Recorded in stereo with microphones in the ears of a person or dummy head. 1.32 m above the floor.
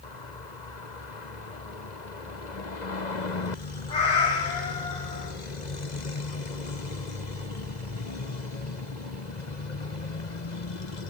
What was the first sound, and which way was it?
A cat meowing, 25° left (ahead or behind).